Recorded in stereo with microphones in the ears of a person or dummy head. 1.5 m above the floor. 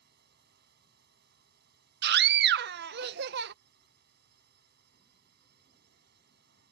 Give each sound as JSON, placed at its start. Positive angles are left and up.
{"t": 0.0, "sound": "a drone", "side_deg": -60}
{"t": 2.0, "sound": "a scream", "side_deg": -60}